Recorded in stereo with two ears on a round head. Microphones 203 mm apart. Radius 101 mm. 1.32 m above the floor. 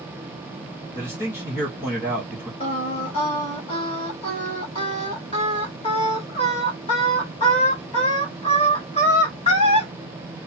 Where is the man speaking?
10° left (ahead or behind), 1.5 m.